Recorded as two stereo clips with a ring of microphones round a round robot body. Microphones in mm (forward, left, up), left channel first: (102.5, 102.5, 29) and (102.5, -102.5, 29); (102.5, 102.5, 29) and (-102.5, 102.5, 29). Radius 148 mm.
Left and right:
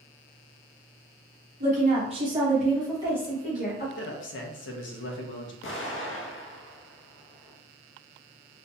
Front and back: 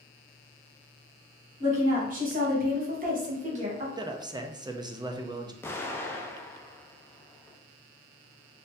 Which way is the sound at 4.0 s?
110° left.